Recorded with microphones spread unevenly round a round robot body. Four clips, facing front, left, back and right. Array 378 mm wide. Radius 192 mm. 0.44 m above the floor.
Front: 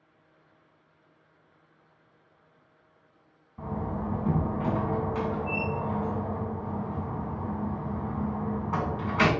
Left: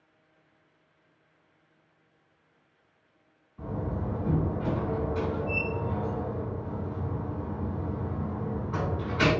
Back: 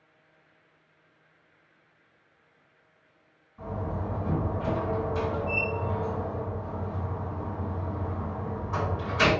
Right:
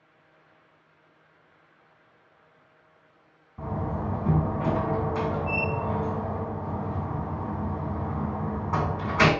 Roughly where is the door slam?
Ahead right.